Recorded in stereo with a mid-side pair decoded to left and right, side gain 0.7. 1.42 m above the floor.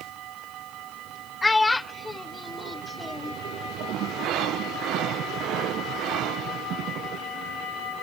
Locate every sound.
1.4 s a child speaking: 10° left